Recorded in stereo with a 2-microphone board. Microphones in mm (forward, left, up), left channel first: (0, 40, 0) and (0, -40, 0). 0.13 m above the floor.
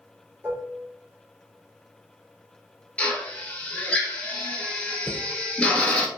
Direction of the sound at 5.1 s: 35° right (ahead or behind).